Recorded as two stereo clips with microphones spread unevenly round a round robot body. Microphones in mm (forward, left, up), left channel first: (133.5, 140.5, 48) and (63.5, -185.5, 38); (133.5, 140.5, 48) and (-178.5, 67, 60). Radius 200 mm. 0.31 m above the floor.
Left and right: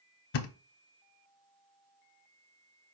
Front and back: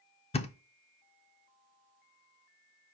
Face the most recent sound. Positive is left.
turn(degrees=85)